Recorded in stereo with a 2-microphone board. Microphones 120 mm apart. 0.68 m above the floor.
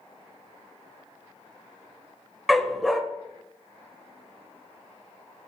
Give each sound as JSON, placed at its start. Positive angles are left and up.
{"t": 2.5, "sound": "a dog barking", "side_deg": 0, "distance_m": 0.5}